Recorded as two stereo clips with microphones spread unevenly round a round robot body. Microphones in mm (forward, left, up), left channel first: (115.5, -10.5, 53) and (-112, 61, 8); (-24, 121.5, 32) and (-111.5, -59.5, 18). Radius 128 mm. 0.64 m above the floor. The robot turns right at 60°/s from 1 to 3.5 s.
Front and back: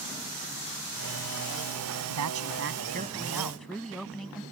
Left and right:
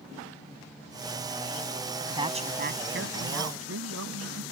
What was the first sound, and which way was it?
A woman speaking, 170° left.